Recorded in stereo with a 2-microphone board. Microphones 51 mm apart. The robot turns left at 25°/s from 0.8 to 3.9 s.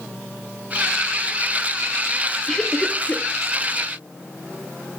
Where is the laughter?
10° left (ahead or behind), 1.0 m; by 3.3 s 25° left (ahead or behind), 1.0 m.